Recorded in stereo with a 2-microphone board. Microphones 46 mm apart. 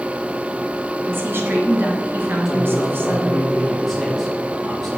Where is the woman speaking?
55° right (ahead or behind), 3 m.